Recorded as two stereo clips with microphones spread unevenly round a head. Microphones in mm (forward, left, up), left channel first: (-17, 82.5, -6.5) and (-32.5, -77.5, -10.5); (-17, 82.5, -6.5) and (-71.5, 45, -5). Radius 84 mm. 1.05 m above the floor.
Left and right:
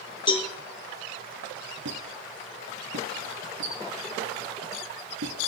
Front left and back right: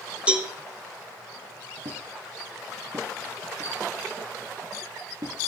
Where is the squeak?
95° right, 4.5 m.